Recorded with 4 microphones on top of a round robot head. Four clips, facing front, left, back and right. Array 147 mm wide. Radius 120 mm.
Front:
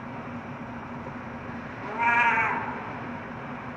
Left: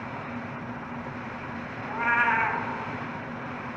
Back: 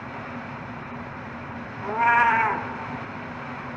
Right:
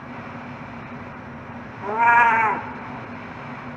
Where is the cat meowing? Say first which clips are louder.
Right 10 dB, back 4 dB; 115° right, 0.5 m.